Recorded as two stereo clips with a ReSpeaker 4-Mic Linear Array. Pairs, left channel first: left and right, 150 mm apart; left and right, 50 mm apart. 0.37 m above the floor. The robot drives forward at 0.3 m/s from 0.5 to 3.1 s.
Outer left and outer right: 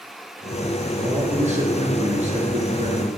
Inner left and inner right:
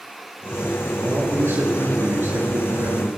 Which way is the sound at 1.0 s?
55° right (ahead or behind).